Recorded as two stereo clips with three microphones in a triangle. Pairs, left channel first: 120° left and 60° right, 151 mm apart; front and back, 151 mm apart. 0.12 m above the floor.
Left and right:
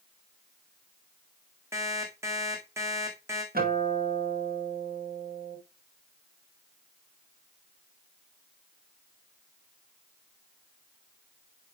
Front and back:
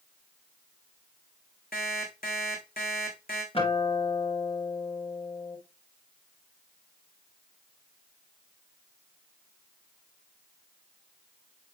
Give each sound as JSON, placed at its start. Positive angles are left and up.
{"t": 1.7, "sound": "an alarm clock", "azimuth_deg": 10, "distance_m": 3.5}
{"t": 3.5, "sound": "a guitar", "azimuth_deg": -50, "distance_m": 5.5}